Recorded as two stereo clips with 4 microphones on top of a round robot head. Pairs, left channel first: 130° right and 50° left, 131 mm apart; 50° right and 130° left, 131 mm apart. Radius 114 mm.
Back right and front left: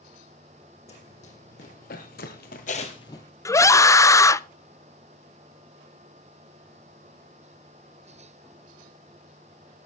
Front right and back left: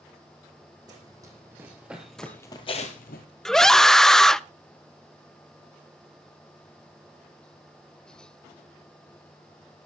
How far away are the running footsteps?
About 3 m.